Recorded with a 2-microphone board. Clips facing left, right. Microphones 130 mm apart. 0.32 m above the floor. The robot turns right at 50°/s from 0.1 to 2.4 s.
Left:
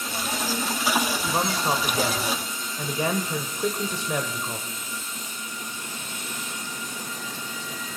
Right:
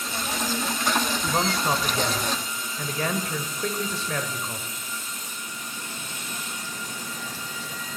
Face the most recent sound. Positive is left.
turn(degrees=15)  # may be behind; listen again after turning